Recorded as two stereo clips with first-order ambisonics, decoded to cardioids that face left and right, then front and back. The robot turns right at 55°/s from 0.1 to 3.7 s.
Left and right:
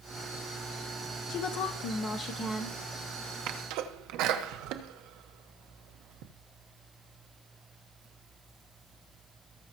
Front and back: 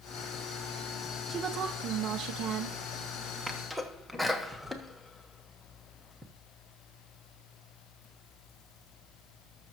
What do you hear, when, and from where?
1.3 s a woman speaking: 105° left, 0.7 m; by 2.8 s 175° right, 0.7 m
3.5 s a sneeze: 100° right, 1.1 m; by 6.3 s 90° right, 1.1 m